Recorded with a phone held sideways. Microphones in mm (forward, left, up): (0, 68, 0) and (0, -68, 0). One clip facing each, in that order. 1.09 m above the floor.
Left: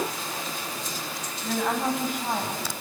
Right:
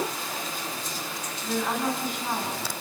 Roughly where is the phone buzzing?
I don't hear a phone buzzing.